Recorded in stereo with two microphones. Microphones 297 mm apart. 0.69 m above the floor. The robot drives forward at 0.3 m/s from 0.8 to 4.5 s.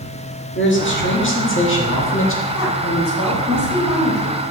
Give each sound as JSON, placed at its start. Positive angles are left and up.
{"t": 0.6, "sound": "a man speaking", "side_deg": 45, "distance_m": 1.6}
{"t": 2.5, "sound": "a woman speaking", "side_deg": 75, "distance_m": 4.0}